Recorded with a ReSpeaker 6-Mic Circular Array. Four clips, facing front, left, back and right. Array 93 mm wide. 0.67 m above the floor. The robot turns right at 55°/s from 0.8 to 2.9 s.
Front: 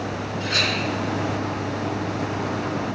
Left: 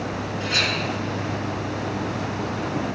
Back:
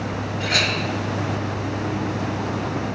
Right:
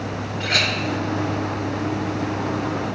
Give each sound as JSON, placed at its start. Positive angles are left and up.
{"t": 0.4, "sound": "a clink", "azimuth_deg": -120, "distance_m": 2.0}